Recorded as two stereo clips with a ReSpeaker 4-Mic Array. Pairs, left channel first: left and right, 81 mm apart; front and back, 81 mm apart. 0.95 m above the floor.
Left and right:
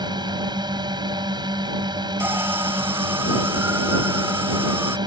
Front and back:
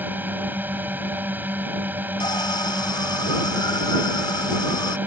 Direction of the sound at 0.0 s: 115° right.